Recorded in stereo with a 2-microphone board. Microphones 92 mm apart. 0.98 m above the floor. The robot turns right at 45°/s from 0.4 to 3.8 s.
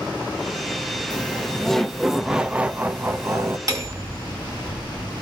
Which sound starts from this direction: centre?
Laughter, at 1.1 s.